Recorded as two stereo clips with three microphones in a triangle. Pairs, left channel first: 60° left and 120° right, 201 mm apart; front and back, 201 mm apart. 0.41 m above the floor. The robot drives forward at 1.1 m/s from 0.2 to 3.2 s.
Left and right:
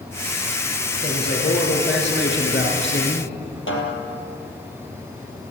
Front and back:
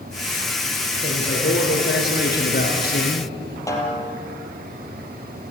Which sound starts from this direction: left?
A snare drum, at 3.7 s.